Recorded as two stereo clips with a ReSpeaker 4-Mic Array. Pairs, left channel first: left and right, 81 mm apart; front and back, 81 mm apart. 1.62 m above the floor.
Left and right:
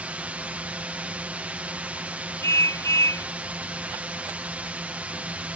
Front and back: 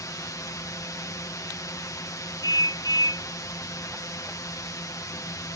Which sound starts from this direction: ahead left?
A car horn, at 2.4 s.